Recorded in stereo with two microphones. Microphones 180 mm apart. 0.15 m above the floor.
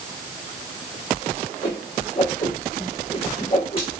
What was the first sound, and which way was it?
A whoosh, 35° left (ahead or behind).